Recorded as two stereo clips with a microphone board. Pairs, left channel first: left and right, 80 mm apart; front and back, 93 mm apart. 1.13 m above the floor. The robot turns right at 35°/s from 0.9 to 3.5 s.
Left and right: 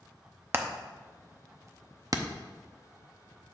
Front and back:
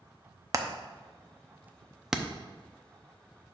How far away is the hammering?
About 0.6 m.